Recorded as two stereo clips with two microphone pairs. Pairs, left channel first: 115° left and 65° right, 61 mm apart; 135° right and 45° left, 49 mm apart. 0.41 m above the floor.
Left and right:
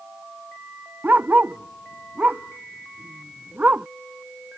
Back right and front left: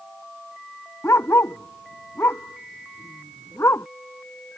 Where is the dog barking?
125° right.